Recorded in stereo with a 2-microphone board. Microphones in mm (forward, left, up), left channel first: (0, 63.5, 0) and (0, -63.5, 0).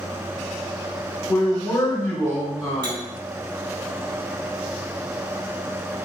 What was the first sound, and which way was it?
A man speaking, 20° left (ahead or behind).